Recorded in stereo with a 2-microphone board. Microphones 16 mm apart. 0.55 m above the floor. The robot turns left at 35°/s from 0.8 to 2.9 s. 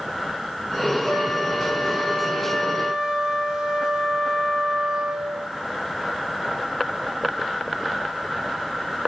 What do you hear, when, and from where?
1.1 s a flute: straight ahead, 6 m; by 5.5 s 65° right, 6 m